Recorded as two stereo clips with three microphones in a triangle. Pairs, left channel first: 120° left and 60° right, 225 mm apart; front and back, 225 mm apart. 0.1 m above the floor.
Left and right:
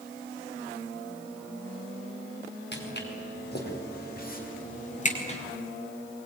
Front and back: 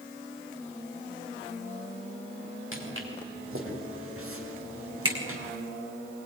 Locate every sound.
2.7 s footsteps: 160° left, 6 m; by 5.4 s straight behind, 4 m